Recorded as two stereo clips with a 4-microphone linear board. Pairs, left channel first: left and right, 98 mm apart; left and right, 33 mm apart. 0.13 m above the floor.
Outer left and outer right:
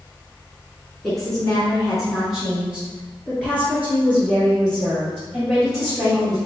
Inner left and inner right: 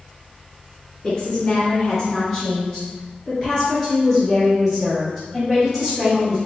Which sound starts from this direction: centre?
A woman speaking, at 1.0 s.